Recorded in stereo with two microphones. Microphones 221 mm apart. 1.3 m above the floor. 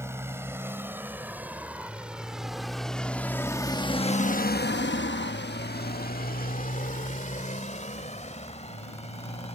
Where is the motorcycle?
10° right (ahead or behind); by 9.6 s 30° left (ahead or behind).